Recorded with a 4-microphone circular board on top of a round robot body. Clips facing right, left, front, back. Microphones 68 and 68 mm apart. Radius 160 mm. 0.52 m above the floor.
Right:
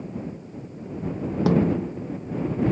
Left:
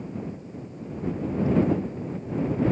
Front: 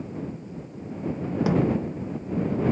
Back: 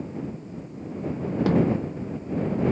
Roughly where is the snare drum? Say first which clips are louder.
Right 2 dB, back 1 dB; right.